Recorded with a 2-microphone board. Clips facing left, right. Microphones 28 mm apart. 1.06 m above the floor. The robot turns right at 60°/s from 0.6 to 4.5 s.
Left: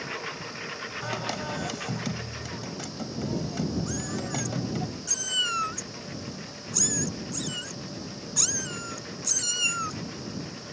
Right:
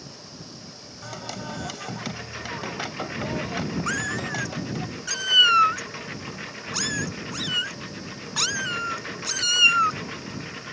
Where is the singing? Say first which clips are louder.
Left 2 dB; 150° left; by 4.9 s 5° right.